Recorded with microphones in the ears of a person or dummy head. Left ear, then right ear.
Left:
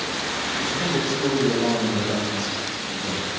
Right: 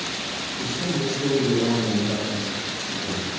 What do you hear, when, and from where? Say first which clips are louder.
0.6 s a man speaking: left 2 dB; 20° left (ahead or behind), 1.5 m; by 3.3 s 70° left (ahead or behind), 1.7 m